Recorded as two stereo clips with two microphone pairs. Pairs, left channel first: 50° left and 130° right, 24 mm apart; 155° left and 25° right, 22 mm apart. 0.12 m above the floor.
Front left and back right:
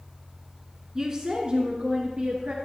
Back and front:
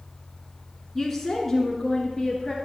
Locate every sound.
0.9 s a woman speaking: 135° right, 1.2 m; by 2.5 s 130° right, 1.8 m